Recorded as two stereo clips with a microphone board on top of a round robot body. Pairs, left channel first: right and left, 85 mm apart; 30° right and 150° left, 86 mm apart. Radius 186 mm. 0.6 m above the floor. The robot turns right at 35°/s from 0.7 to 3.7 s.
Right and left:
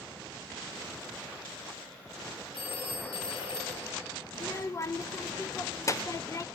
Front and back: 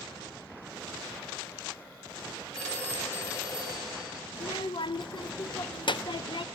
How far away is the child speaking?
About 0.9 m.